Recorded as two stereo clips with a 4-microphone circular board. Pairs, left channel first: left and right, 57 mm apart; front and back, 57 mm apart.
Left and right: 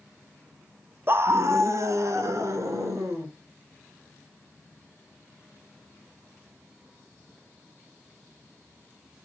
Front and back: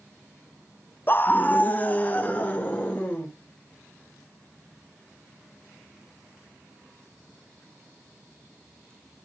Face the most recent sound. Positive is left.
turn(degrees=-65)